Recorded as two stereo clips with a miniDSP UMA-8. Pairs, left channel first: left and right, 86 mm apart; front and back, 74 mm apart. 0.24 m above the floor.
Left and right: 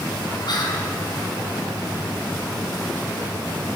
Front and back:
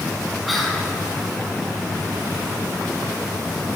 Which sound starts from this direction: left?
Whispering, at 0.5 s.